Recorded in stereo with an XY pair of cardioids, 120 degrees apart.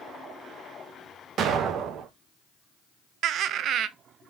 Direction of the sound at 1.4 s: 60° right.